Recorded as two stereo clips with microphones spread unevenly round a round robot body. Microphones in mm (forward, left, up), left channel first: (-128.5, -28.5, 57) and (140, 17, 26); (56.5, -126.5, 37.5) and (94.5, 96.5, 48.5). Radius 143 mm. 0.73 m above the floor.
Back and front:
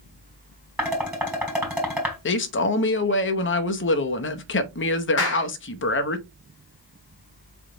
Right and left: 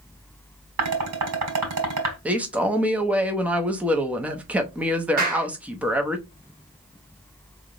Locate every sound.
0.8 s dishes clattering: 95° left, 3 m
2.2 s a man speaking: 165° left, 0.8 m
5.2 s a clap: 140° left, 1.4 m